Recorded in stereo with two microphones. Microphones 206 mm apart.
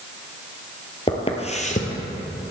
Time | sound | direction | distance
1.1 | footsteps | 25° left (ahead or behind) | 1.5 m